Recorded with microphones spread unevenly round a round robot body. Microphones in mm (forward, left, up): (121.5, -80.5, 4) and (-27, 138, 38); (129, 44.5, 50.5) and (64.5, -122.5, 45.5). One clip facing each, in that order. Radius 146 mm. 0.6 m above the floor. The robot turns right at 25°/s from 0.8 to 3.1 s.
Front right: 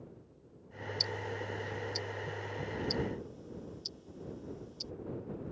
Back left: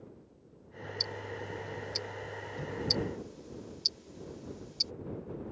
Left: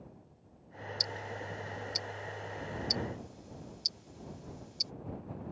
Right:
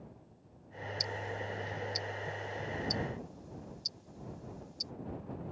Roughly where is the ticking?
Ahead.